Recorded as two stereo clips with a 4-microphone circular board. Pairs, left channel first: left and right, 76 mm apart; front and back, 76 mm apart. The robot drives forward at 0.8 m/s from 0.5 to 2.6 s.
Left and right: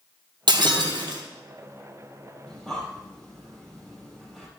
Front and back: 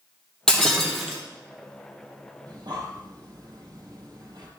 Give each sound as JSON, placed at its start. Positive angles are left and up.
{"t": 0.5, "sound": "breaking glass", "azimuth_deg": -80, "distance_m": 2.0}
{"t": 2.5, "sound": "breathing", "azimuth_deg": 175, "distance_m": 4.0}